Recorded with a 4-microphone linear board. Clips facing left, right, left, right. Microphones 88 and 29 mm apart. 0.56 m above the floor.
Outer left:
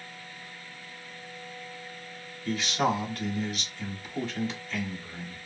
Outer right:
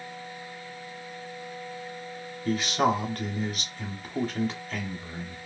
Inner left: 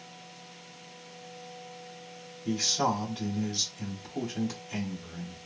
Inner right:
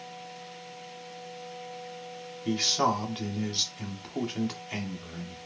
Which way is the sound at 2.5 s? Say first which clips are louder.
Outer right 3 dB, inner right 2 dB; 45° right (ahead or behind).